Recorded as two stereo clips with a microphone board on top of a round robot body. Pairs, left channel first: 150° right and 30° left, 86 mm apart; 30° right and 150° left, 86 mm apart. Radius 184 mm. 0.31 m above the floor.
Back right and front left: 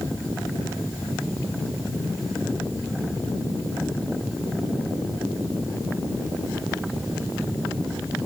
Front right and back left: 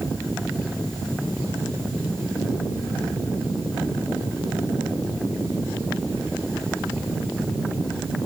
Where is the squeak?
No squeak in this recording.